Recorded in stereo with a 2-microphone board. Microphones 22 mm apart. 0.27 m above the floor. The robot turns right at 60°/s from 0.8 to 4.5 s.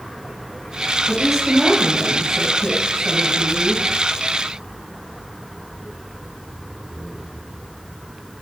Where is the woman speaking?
165° right, 1.6 m; by 3.8 s straight ahead, 1.6 m.